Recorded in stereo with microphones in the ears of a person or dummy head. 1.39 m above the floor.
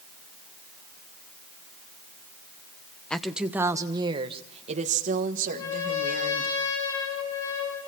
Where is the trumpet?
85° left, 10 m.